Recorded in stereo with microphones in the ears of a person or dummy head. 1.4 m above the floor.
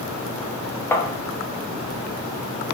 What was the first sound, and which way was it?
Tapping, 15° left (ahead or behind).